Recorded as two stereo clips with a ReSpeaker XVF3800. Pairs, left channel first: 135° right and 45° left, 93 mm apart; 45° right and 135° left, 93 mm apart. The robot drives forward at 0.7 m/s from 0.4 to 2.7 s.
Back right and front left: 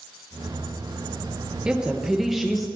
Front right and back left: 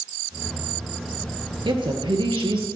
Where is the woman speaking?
125° left, 2.5 m; by 2.7 s 135° left, 2.5 m.